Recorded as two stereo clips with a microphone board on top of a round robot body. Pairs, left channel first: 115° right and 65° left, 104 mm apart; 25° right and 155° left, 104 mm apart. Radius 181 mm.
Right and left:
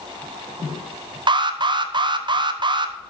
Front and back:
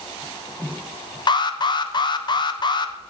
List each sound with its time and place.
1.3 s an alarm: 25° left, 0.8 m